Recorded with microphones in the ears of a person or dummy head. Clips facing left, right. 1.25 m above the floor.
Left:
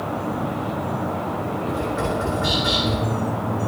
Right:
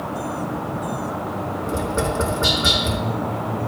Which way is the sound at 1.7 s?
45° right (ahead or behind).